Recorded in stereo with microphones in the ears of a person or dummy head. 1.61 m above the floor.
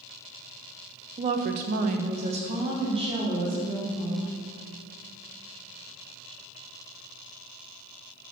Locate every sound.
1.2 s a woman speaking: 25° right (ahead or behind), 0.6 m; by 4.3 s 20° right (ahead or behind), 3 m